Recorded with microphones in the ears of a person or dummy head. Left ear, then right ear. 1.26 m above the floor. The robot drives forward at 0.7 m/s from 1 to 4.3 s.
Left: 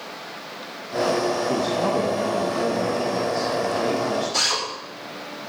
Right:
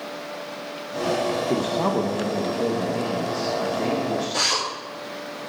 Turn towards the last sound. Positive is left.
turn(degrees=25)  # may be behind; listen again after turning